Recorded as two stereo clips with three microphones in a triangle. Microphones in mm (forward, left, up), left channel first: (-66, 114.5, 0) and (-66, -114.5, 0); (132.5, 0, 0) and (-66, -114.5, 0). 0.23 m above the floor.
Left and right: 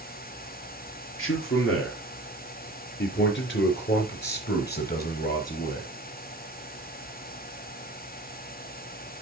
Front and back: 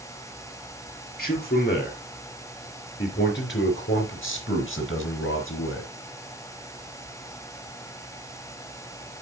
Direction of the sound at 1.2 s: 75° left.